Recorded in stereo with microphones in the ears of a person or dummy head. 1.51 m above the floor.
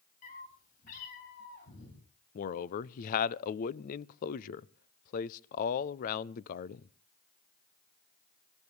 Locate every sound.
0.2 s a cat meowing: 40° left (ahead or behind), 6 m; by 2.0 s 65° left (ahead or behind), 6.5 m
2.4 s a man speaking: 45° left (ahead or behind), 0.6 m